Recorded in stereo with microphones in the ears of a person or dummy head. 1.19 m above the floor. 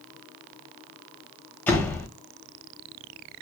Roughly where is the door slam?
Centre.